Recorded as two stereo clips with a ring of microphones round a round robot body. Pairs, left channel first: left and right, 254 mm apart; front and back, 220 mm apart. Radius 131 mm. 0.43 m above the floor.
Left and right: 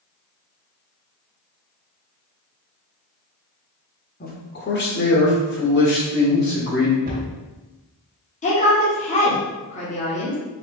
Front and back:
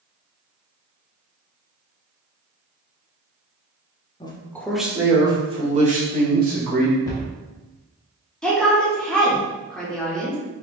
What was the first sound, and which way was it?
A man speaking, 60° left.